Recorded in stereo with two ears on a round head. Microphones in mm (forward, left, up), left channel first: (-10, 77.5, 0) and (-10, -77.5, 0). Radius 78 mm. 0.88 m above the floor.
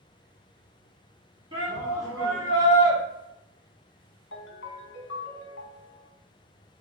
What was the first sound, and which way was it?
A shout, 25° right (ahead or behind).